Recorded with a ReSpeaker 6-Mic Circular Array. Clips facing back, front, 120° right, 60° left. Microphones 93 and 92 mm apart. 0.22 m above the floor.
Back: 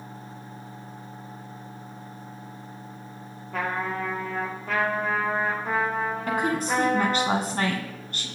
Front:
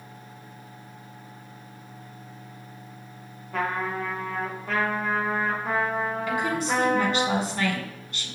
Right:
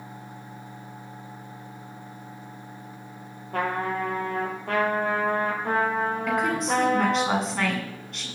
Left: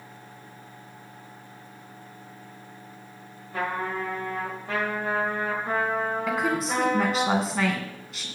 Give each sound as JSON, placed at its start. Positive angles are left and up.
{"t": 3.5, "sound": "a trumpet", "azimuth_deg": -90, "distance_m": 3.5}
{"t": 6.3, "sound": "a woman speaking", "azimuth_deg": 150, "distance_m": 2.5}